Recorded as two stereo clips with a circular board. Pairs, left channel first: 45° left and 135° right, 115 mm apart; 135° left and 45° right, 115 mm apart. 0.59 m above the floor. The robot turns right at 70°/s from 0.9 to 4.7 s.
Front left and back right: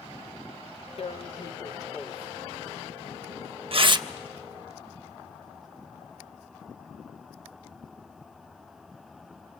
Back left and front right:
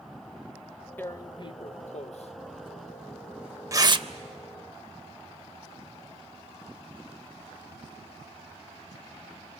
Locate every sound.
1.0 s tearing paper: 65° left, 0.5 m; by 4.1 s 80° right, 0.5 m